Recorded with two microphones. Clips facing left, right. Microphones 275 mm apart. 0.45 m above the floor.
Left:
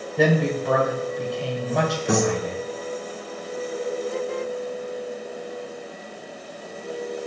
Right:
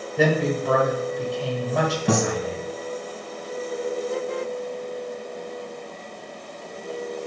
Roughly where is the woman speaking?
Centre.